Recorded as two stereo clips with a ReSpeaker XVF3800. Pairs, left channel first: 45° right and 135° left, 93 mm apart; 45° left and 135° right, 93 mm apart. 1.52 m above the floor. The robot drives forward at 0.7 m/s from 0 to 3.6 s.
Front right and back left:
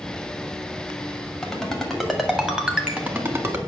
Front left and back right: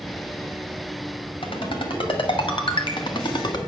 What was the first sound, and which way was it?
A ringtone, 40° left.